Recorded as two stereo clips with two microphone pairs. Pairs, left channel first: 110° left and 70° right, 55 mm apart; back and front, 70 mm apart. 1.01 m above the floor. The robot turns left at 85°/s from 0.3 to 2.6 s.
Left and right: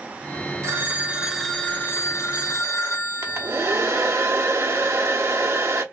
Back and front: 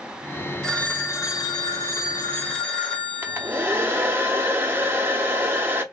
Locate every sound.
0.6 s a phone ringing: 95° right, 1.6 m; by 4.2 s 95° left, 1.6 m
3.2 s a hair dryer: 50° right, 0.9 m